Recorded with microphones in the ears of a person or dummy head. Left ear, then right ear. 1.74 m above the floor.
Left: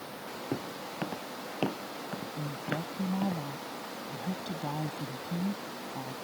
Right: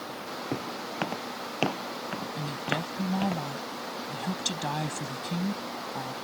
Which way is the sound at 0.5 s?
30° right (ahead or behind).